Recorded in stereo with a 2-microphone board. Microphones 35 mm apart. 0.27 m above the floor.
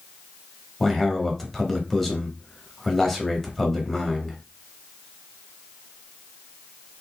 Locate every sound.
0.8 s a man speaking: 10° left (ahead or behind), 1.1 m